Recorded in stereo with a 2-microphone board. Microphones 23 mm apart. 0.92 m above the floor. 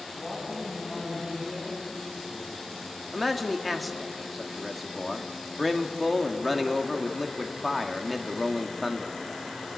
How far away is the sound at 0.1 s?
About 8 m.